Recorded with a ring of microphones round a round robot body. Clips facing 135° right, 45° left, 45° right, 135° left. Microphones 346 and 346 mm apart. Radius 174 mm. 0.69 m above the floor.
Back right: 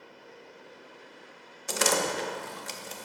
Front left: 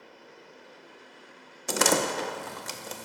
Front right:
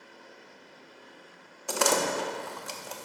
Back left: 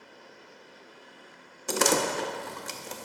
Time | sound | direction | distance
1.7 | a door slam | 75° left | 0.5 m